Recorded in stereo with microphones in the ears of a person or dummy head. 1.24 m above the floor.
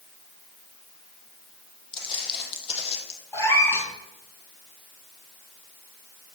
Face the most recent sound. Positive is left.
turn(degrees=10)  # may be behind; listen again after turning